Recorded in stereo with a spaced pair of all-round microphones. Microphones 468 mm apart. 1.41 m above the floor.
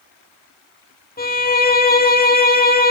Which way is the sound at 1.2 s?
20° left (ahead or behind).